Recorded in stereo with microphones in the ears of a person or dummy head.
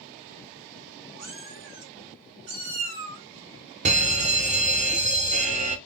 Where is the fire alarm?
35° right (ahead or behind), 0.6 m.